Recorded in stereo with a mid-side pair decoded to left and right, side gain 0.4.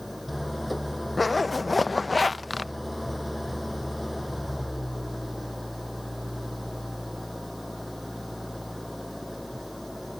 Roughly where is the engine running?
Ahead.